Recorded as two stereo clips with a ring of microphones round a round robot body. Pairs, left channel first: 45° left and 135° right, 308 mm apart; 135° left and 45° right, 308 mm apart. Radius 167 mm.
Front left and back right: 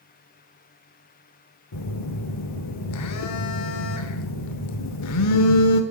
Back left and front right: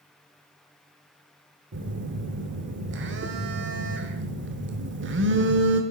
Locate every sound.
1.7 s a phone buzzing: 10° left, 0.9 m